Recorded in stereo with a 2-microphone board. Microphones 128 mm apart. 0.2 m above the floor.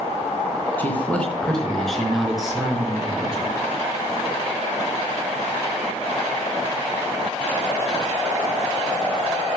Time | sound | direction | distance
0.8 | a man speaking | 15° left (ahead or behind) | 2.5 m